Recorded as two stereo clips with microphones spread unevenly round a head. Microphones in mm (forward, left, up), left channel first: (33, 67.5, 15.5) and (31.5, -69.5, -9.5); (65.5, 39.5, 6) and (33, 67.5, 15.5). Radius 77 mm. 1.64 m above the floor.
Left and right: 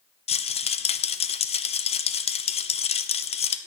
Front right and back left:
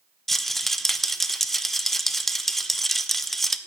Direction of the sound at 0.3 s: 45° left.